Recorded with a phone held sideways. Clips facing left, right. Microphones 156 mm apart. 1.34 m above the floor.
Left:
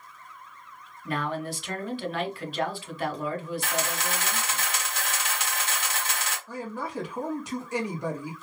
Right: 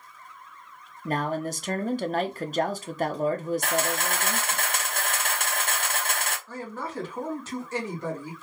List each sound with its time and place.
1.1 s a man speaking: 45° right (ahead or behind), 0.5 m
3.6 s a camera shutter: 55° right (ahead or behind), 0.7 m
6.5 s a man speaking: 15° left (ahead or behind), 1.1 m